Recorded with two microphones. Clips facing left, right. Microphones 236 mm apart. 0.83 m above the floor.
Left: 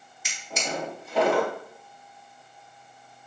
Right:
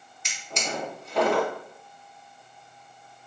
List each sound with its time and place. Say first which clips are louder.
0.2 s a drawer: left 1 dB; 5° left (ahead or behind), 1.2 m